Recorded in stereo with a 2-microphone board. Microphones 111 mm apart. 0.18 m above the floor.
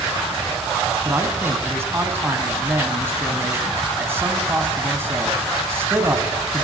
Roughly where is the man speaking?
Right.